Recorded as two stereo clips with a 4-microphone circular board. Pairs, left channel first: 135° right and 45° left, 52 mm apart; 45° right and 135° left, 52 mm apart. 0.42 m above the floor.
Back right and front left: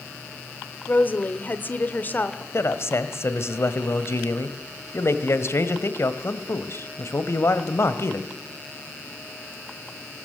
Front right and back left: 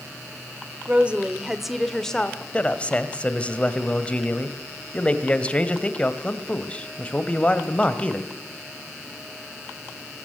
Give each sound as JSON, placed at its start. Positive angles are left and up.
{"t": 0.9, "sound": "a woman speaking", "azimuth_deg": -175, "distance_m": 1.8}
{"t": 2.5, "sound": "a man speaking", "azimuth_deg": -110, "distance_m": 2.0}